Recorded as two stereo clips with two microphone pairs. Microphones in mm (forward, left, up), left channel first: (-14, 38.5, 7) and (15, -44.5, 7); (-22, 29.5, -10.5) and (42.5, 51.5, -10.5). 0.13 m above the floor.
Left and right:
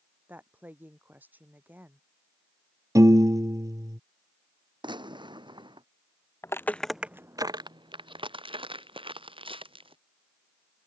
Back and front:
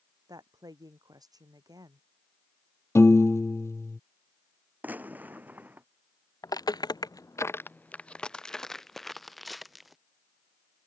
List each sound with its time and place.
0.3 s a woman speaking: straight ahead
3.0 s a piano: 115° right
4.8 s a gunshot: 45° right
6.4 s footsteps: 165° left; by 10.0 s 70° right